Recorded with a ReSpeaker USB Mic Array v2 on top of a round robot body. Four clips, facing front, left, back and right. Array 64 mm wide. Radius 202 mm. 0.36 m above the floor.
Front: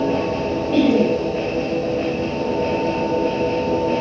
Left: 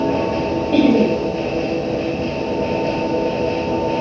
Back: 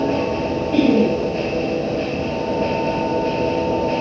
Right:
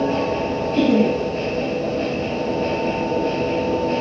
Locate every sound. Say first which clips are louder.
0.7 s laughter: left 3 dB, even; 80° left, 8.5 m